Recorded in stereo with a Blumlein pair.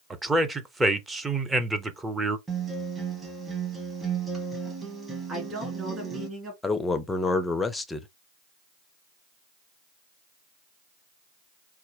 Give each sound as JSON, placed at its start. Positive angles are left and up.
{"t": 0.1, "sound": "a man speaking", "azimuth_deg": -10, "distance_m": 0.6}
{"t": 2.5, "sound": "a guitar", "azimuth_deg": -15, "distance_m": 1.1}
{"t": 5.3, "sound": "a woman speaking", "azimuth_deg": -25, "distance_m": 2.0}
{"t": 6.6, "sound": "a man speaking", "azimuth_deg": 10, "distance_m": 0.5}